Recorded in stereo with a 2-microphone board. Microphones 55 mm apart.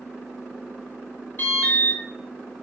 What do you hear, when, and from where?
1.4 s an alarm: 45° left (ahead or behind), 3.5 m